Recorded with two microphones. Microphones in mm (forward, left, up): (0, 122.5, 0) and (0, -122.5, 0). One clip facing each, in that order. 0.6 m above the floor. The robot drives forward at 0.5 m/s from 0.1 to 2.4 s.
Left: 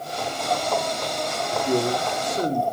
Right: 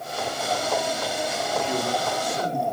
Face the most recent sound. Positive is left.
turn(degrees=45)  # may be behind; listen again after turning